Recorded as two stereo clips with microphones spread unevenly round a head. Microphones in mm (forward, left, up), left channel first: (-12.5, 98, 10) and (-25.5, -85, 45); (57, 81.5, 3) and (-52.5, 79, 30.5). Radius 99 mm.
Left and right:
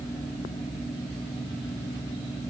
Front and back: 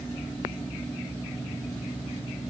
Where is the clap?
I don't hear a clap.